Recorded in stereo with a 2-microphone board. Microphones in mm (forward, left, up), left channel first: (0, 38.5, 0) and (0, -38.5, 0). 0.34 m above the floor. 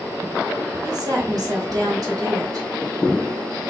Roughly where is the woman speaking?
Right.